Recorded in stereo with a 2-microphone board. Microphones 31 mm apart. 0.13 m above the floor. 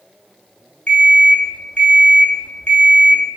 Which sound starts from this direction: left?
An alarm clock, at 0.9 s.